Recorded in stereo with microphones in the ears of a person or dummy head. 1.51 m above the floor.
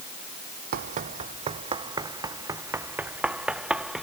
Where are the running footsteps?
45° right (ahead or behind); by 4.0 s 5° right (ahead or behind).